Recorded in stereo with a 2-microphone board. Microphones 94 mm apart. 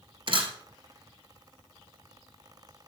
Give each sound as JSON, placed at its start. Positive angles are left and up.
{"t": 0.3, "sound": "a camera shutter", "side_deg": -60, "distance_m": 3.0}